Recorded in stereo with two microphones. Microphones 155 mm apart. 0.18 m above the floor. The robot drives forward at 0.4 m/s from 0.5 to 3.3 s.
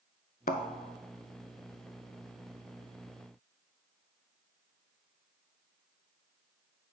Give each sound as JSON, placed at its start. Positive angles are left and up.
{"t": 0.5, "sound": "a thud", "side_deg": 65, "distance_m": 0.5}